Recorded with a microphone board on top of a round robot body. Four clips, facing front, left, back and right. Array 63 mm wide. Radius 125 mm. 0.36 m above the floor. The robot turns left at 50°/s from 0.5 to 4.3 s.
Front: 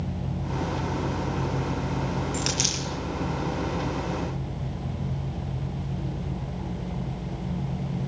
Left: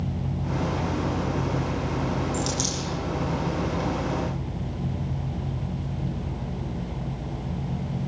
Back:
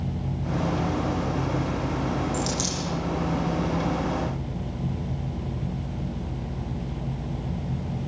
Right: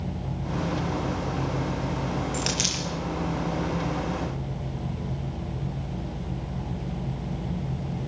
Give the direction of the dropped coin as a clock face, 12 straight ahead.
1 o'clock.